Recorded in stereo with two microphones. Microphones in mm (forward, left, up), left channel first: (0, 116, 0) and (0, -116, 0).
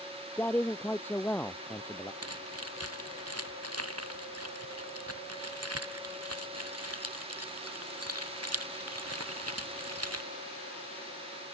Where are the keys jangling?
80° right.